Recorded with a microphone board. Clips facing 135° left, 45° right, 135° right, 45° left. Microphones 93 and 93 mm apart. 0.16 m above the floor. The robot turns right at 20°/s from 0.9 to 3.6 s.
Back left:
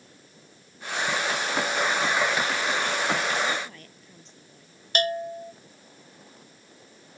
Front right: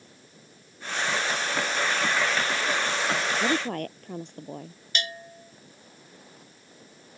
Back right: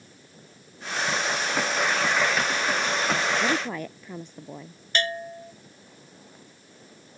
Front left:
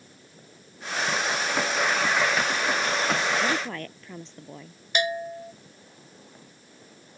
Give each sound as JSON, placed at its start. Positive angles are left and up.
{"t": 3.4, "sound": "a woman speaking", "azimuth_deg": -60}
{"t": 5.0, "sound": "a bell", "azimuth_deg": 120}